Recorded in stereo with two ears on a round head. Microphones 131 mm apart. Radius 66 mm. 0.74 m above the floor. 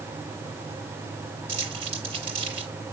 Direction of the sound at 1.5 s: 45° right (ahead or behind).